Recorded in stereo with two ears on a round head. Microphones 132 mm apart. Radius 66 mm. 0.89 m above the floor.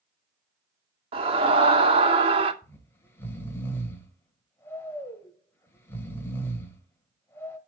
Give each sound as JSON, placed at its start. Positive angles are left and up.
{"t": 1.1, "sound": "a scream", "side_deg": -40, "distance_m": 2.5}
{"t": 2.6, "sound": "snoring", "side_deg": 15, "distance_m": 2.0}